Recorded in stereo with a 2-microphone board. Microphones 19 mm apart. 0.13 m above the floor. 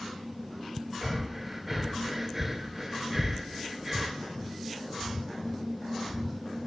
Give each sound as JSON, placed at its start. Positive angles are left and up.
{"t": 1.0, "sound": "breathing", "side_deg": -10, "distance_m": 0.6}